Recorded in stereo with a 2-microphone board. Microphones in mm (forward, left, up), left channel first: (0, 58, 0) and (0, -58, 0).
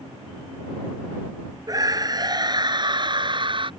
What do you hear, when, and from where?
1.7 s a scream: 30° right (ahead or behind); by 3.7 s 45° right (ahead or behind)